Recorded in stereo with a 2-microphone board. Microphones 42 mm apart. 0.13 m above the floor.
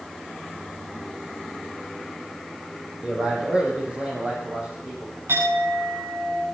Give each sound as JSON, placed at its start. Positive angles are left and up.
{"t": 3.0, "sound": "a man speaking", "side_deg": -20, "distance_m": 4.0}
{"t": 5.3, "sound": "a clink", "side_deg": -85, "distance_m": 7.0}